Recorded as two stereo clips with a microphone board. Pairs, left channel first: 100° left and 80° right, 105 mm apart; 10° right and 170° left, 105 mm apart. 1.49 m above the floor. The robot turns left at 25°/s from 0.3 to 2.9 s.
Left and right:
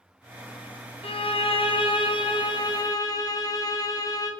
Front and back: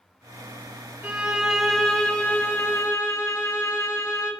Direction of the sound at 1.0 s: 95° left.